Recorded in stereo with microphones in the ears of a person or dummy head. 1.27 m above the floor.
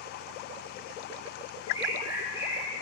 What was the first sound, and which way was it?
A bird, 10° right (ahead or behind).